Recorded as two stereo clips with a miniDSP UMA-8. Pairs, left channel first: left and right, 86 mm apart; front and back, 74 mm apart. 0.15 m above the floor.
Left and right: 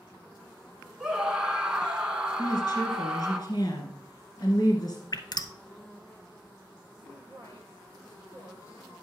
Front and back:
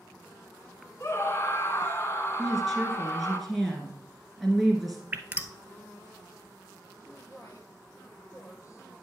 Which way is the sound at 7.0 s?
40° left.